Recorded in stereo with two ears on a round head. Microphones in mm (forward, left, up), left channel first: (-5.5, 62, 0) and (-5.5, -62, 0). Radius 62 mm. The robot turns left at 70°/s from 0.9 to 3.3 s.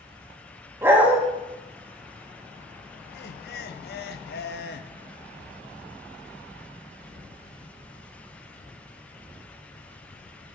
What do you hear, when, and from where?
0.8 s a dog barking: 15° right (ahead or behind), 1.1 m; by 1.2 s 5° right (ahead or behind), 1.1 m
3.1 s laughter: 75° left (ahead or behind), 0.6 m; by 4.9 s 80° left, 0.6 m